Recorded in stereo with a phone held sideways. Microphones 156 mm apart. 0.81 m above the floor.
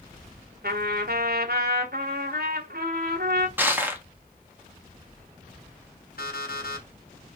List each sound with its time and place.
0.6 s a trumpet: 75° right (ahead or behind), 1.7 m
3.6 s crushing: 10° right (ahead or behind), 1.6 m
6.2 s an alarm clock: 75° left (ahead or behind), 3.5 m